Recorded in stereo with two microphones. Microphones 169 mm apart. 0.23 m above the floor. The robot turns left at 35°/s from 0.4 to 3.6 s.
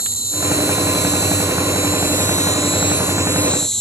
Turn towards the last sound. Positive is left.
turn(degrees=5)